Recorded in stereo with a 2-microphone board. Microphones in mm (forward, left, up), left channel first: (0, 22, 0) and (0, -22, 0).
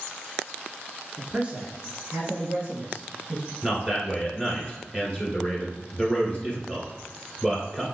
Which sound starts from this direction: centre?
A man speaking, at 1.2 s.